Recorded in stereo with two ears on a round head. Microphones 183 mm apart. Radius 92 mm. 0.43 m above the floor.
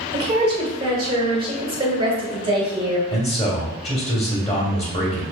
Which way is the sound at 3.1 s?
25° left (ahead or behind).